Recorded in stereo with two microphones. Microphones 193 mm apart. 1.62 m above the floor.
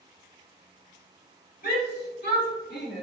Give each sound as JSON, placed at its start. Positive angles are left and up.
{"t": 1.6, "sound": "a shout", "side_deg": 55, "distance_m": 3.5}